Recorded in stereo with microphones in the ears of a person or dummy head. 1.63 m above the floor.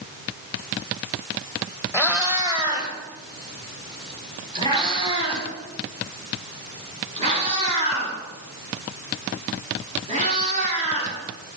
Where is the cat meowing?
10° right (ahead or behind), 3.5 m; by 11.2 s 40° right (ahead or behind), 10 m.